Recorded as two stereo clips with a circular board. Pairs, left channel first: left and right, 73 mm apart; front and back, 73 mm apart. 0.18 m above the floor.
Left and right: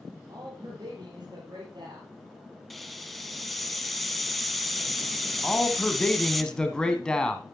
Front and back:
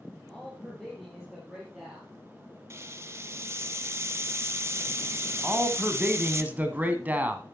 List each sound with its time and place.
0.3 s a man speaking: 80° right, 4.5 m; by 2.1 s 100° right, 4 m
2.7 s a hiss: straight behind, 0.7 m
5.4 s a man speaking: 155° left, 1.3 m